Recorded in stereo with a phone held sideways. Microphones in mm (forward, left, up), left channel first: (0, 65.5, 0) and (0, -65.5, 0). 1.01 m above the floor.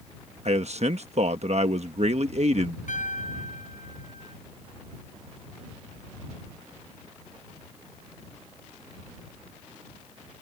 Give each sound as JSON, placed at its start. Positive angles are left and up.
{"t": 0.5, "sound": "a man speaking", "side_deg": -55}
{"t": 2.9, "sound": "a piano", "side_deg": 70}